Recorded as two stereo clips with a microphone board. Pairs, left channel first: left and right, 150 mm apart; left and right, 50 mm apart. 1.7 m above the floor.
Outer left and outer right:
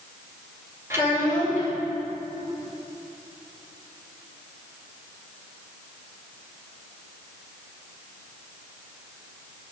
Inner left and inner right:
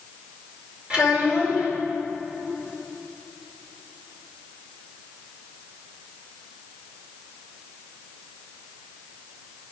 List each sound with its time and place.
0.9 s a child speaking: 20° right (ahead or behind), 4.5 m